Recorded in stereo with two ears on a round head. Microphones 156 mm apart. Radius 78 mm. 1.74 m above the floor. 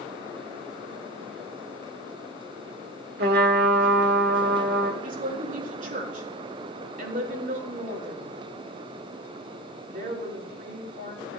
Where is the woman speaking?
50° right (ahead or behind), 5 m.